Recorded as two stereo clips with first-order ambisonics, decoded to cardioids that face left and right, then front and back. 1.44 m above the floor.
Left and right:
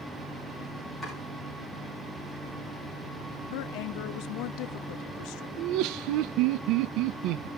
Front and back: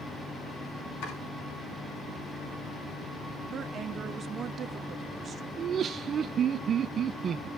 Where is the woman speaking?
115° left, 0.6 m.